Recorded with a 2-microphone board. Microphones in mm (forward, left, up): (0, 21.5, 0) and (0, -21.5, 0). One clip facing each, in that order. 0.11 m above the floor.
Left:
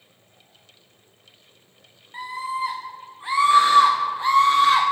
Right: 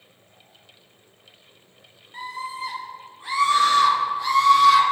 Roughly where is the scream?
Left.